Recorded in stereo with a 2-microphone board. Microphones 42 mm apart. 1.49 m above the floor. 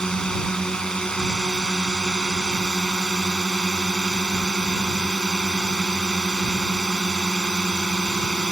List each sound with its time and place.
0.0 s a drone: 15° left (ahead or behind)